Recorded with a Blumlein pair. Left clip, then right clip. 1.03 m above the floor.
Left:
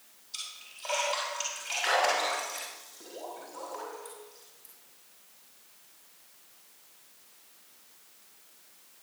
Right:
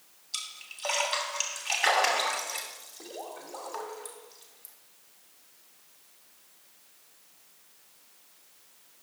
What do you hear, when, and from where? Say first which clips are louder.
0.3 s a splash: right 3 dB; 65° right, 2.5 m